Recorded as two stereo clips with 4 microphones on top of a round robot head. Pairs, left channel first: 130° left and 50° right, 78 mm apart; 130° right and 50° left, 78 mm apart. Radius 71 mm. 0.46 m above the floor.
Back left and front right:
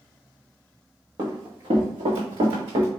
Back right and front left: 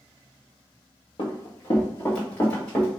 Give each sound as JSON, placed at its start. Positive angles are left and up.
{"t": 1.2, "sound": "running footsteps", "azimuth_deg": -85, "distance_m": 1.5}